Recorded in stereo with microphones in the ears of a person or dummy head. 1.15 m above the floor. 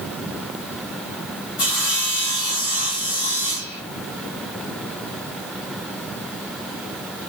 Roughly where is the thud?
No thud in this recording.